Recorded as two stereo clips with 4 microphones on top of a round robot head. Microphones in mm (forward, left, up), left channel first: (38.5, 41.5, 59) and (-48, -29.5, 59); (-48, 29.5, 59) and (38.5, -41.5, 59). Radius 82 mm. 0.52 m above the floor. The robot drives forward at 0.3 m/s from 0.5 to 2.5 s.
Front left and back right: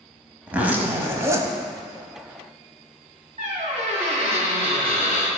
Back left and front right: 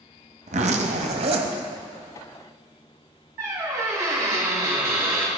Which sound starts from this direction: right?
A squeak, at 3.4 s.